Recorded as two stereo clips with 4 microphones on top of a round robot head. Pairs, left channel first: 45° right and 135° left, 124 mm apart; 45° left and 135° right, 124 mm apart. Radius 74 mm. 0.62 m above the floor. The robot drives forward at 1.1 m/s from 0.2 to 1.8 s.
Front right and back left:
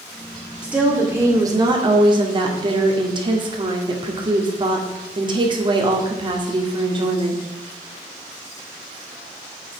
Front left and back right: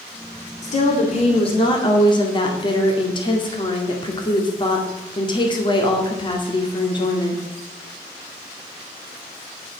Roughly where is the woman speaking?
Ahead left.